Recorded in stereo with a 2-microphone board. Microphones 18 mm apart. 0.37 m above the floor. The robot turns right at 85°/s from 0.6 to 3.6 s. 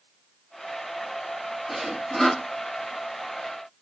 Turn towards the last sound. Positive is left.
turn(degrees=145)